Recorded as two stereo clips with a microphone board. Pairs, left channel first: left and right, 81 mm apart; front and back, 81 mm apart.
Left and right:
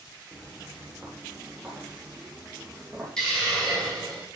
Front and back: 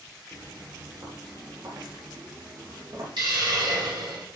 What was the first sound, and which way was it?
Footsteps, 165° left.